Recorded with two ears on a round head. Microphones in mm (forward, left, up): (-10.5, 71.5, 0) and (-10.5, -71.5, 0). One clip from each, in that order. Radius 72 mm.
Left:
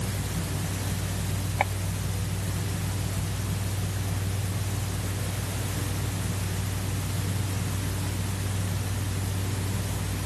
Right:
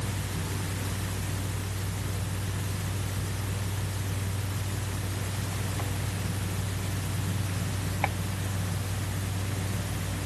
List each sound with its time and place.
Only background noise.